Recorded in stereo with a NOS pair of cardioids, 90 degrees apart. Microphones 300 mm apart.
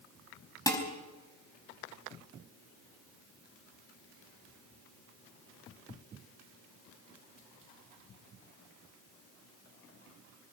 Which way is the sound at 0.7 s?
10° left.